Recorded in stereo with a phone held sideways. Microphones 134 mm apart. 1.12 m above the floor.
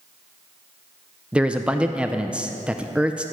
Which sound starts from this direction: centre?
A man speaking, at 1.3 s.